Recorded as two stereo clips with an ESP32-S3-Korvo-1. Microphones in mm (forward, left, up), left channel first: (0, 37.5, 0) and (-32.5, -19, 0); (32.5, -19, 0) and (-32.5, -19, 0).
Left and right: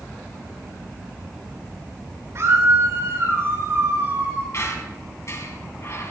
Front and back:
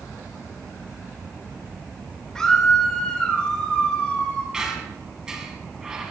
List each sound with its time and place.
2.4 s a scream: 80° right, 3.5 m; by 4.4 s 70° right, 5 m
4.5 s a squeak: 100° left, 3.5 m